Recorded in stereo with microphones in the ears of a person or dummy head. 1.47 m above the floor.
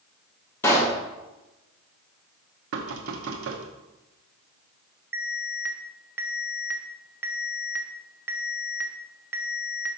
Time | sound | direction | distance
0.6 | a pop | 10° left (ahead or behind) | 1.0 m
2.7 | knocking | 70° right (ahead or behind) | 0.9 m
5.1 | an alarm | 15° right (ahead or behind) | 0.7 m